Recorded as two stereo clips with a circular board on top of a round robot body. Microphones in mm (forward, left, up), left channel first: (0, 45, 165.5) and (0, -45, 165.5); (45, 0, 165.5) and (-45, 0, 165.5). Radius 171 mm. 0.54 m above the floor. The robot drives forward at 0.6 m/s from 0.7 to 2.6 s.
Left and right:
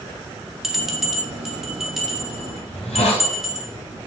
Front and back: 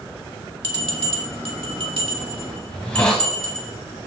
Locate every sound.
0.6 s a bell: 175° right, 1.9 m; by 3.7 s straight behind, 3 m
2.7 s a hiss: 75° left, 0.5 m